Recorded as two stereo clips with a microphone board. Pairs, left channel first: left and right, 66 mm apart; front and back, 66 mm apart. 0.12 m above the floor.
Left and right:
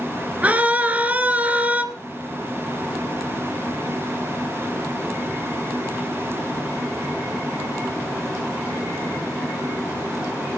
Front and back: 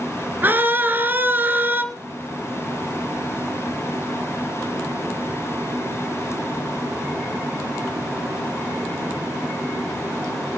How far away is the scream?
About 1.4 m.